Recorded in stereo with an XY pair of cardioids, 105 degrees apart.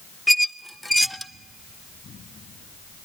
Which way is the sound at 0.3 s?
Straight ahead.